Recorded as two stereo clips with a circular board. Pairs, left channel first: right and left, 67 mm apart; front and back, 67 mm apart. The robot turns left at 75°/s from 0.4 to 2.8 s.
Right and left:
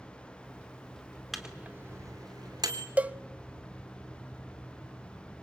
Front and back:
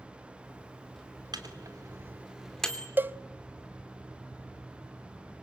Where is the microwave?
Straight behind, 3 m; by 2.9 s 70° left, 3 m.